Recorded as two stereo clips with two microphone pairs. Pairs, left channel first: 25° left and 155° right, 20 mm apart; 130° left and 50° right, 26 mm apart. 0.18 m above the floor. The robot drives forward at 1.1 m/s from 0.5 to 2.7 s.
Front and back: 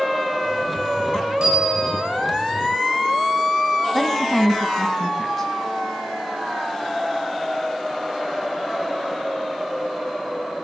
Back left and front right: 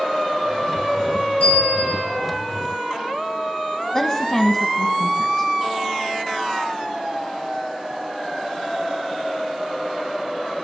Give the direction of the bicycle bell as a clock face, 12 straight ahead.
7 o'clock.